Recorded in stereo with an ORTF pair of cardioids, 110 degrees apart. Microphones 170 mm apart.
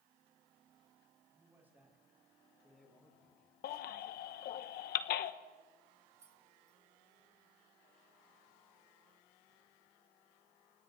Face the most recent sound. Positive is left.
turn(degrees=-20)